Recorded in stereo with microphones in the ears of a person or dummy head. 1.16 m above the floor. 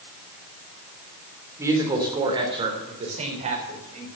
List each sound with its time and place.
1.6 s a woman speaking: 15° right (ahead or behind), 3.5 m; by 4.1 s 40° right (ahead or behind), 4.5 m